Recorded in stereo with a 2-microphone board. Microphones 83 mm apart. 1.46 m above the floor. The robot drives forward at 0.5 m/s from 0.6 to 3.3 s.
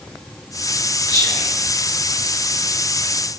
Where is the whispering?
50° left (ahead or behind), 5.5 m.